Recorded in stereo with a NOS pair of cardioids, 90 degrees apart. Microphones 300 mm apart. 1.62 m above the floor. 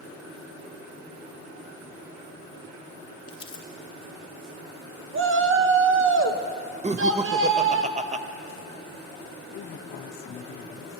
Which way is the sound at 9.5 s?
45° left.